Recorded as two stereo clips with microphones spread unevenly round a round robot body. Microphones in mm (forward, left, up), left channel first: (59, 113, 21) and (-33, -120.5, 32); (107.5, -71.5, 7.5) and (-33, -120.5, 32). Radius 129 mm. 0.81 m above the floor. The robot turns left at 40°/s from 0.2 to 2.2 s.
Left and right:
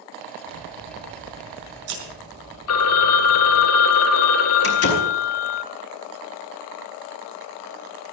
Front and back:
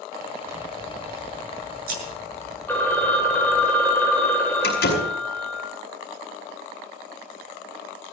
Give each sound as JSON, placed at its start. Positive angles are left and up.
{"t": 0.5, "sound": "scissors", "azimuth_deg": -90, "distance_m": 8.0}
{"t": 2.7, "sound": "a phone ringing", "azimuth_deg": 105, "distance_m": 1.6}
{"t": 4.6, "sound": "a door slam", "azimuth_deg": 35, "distance_m": 5.5}